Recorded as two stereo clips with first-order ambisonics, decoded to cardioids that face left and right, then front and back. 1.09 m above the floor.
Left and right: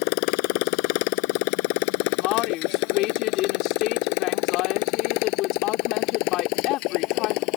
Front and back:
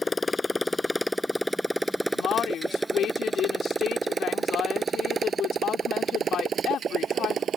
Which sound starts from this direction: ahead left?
A woman speaking, at 2.1 s.